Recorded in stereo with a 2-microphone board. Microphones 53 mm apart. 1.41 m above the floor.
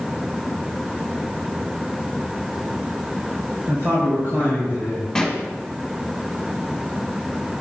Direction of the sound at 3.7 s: 60° right (ahead or behind).